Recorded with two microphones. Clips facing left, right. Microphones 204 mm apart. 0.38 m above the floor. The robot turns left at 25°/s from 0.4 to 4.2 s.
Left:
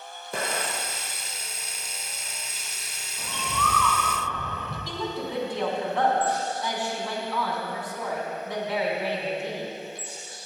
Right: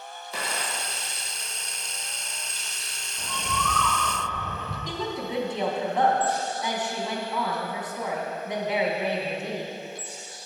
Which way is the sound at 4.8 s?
20° right (ahead or behind).